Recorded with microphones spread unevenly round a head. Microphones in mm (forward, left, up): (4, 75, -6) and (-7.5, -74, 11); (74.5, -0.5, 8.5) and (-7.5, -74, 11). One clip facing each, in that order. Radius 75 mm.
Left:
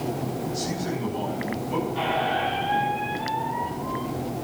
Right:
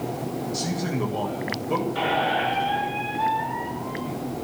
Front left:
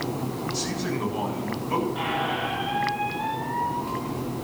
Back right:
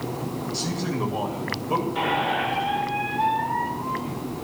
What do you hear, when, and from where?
0.5 s a man speaking: 75° right, 8.5 m
1.9 s a squeak: 115° right, 5 m